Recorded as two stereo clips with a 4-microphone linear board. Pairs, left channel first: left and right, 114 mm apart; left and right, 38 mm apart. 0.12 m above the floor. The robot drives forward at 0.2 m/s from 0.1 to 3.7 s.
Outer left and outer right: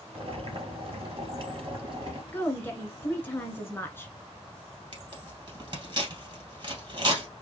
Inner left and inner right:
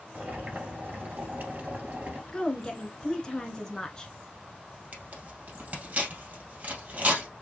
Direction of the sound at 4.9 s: 40° right (ahead or behind).